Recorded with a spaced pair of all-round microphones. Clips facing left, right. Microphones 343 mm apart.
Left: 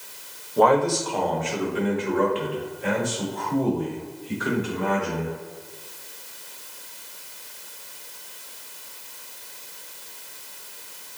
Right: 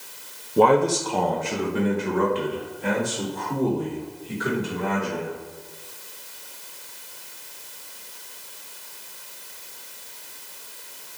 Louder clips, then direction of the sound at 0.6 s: Right 2 dB; 35° right (ahead or behind).